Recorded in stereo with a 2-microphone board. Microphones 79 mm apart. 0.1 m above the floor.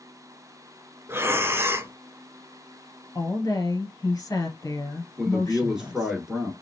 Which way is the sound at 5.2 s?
5° right (ahead or behind).